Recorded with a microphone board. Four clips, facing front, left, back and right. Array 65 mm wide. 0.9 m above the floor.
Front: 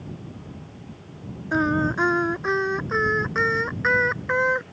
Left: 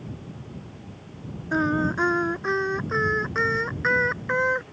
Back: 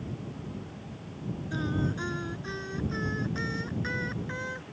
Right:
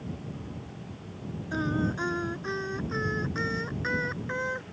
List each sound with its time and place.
1.5 s singing: 30° left